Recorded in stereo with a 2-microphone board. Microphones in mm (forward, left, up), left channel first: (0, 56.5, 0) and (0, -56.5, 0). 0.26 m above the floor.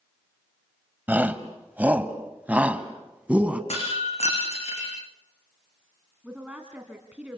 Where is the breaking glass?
70° left (ahead or behind), 9.5 m.